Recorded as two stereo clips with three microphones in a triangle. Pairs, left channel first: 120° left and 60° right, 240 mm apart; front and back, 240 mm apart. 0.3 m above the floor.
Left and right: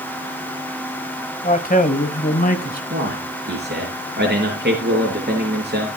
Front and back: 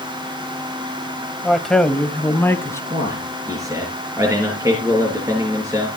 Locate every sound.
1.4 s a man speaking: 90° left, 1.2 m; by 2.8 s 75° left, 2.0 m
2.9 s a man speaking: 105° right, 5.5 m